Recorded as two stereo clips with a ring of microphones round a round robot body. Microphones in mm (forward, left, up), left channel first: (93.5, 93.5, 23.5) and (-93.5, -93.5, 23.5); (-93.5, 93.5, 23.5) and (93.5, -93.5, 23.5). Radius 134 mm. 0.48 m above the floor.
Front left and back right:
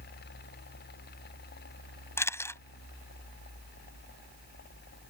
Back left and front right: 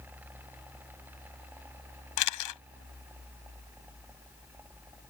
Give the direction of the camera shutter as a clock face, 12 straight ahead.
8 o'clock.